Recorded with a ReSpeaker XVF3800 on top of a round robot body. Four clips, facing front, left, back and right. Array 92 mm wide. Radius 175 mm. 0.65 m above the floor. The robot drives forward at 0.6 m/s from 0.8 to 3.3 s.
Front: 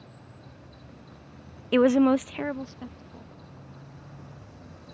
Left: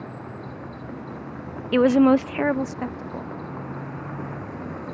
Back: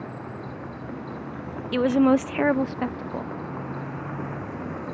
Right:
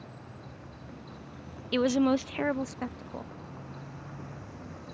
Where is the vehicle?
140° left.